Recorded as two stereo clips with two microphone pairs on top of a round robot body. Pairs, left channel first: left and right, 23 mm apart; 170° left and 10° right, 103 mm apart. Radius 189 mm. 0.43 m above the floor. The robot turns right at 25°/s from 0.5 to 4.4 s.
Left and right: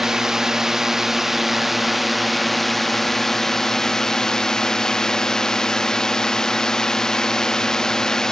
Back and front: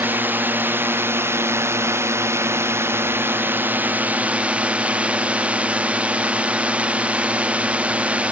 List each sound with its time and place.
0.0 s a drone: 50° right; by 8.3 s 50° left